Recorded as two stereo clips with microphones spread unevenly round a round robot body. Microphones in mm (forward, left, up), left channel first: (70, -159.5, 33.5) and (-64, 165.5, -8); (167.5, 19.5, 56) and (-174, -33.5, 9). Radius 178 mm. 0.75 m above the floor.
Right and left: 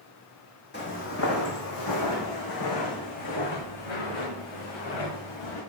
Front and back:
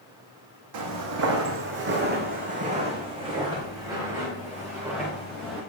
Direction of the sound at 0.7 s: 130° right.